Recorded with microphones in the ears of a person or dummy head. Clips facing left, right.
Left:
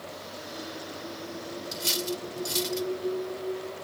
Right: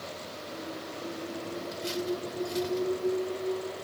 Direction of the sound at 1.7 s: 65° left (ahead or behind).